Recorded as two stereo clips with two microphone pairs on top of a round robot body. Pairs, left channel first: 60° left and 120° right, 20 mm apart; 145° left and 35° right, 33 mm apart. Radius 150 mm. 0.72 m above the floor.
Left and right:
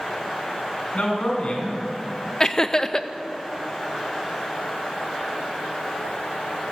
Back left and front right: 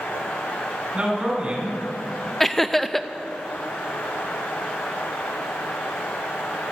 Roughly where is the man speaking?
Ahead left.